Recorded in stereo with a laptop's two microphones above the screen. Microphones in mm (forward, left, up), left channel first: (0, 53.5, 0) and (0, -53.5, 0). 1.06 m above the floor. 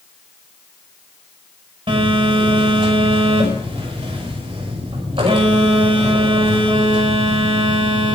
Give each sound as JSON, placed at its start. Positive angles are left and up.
{"t": 1.9, "sound": "a phone buzzing", "side_deg": -55, "distance_m": 6.0}